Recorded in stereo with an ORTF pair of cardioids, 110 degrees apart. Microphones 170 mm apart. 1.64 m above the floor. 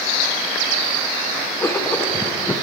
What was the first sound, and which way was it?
Writing, 15° left.